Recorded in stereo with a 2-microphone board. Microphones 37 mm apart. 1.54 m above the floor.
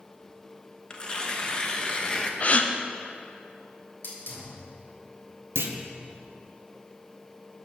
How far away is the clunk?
About 0.8 m.